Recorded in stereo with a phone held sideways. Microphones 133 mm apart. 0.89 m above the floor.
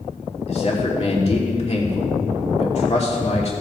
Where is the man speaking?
50° left (ahead or behind), 3 m.